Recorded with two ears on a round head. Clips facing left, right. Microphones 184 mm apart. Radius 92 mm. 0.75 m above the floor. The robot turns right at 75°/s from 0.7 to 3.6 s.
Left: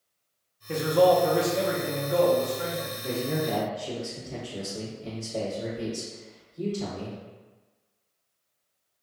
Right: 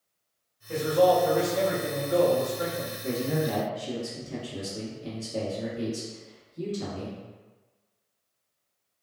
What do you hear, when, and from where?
0.7 s a man speaking: 75° left, 0.8 m; by 2.9 s 120° right, 0.8 m
3.0 s a man speaking: 155° right, 1.3 m; by 7.2 s 115° right, 1.3 m